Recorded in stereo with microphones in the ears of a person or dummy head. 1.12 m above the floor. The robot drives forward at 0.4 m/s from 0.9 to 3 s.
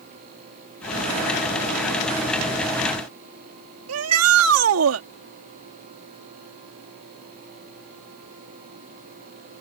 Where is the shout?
85° right.